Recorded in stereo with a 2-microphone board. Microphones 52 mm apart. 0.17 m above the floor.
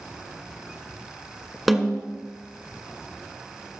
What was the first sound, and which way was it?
A snare drum, 5° right (ahead or behind).